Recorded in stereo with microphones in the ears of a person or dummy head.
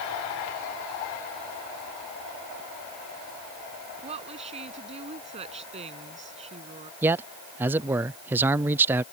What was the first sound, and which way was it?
A woman speaking, 35° right (ahead or behind).